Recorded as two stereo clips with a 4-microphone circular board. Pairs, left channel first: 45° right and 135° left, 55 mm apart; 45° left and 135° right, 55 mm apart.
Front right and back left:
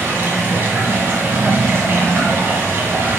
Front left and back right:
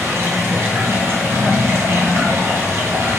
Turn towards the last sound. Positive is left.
turn(degrees=-175)